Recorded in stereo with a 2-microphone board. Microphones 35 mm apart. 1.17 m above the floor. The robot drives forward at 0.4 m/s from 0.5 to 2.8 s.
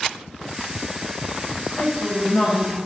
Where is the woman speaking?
65° left (ahead or behind), 0.7 m; by 2.8 s 50° left (ahead or behind), 0.8 m.